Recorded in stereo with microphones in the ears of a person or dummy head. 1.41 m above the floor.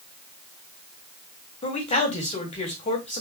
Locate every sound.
1.6 s a man speaking: 35° left (ahead or behind), 3.5 m